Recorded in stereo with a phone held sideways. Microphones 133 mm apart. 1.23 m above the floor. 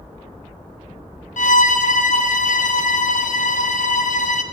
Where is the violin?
70° left (ahead or behind), 0.6 m.